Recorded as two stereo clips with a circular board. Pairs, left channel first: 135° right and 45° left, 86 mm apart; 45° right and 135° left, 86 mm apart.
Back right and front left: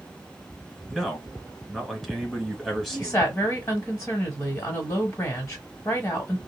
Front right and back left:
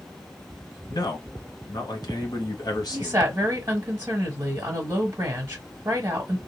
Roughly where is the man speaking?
Ahead right.